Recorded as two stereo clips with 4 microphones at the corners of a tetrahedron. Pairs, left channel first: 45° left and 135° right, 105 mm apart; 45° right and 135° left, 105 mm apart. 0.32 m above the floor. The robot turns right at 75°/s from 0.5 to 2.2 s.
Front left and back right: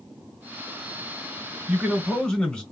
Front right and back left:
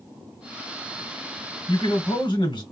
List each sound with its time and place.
1.7 s a man speaking: 75° right, 1.2 m; by 2.6 s 35° right, 1.2 m